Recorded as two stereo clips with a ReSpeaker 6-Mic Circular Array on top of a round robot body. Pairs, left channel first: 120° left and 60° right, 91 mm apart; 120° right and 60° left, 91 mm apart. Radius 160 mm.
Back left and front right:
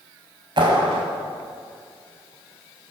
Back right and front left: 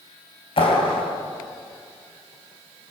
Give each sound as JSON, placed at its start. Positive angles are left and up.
{"t": 0.6, "sound": "a clap", "azimuth_deg": -95, "distance_m": 5.0}